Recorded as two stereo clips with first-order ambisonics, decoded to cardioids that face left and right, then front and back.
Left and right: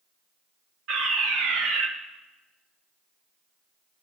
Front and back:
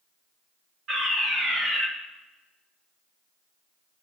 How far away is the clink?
I don't hear a clink.